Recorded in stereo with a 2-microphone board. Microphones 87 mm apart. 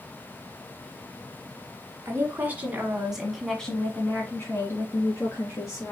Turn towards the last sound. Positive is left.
turn(degrees=40)  # may be behind; listen again after turning